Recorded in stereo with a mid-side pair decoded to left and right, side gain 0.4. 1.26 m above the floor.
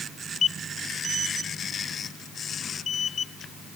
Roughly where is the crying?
I don't hear crying.